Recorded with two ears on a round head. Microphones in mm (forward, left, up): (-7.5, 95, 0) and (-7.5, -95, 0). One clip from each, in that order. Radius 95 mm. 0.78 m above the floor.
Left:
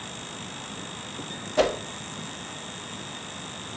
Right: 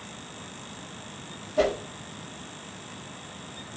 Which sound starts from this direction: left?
A whoosh, at 1.6 s.